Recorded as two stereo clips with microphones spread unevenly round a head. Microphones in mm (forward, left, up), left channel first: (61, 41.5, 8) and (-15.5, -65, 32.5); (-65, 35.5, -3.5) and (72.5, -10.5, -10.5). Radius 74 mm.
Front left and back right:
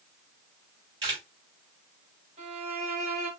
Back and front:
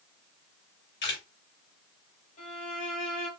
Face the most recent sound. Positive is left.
turn(degrees=-160)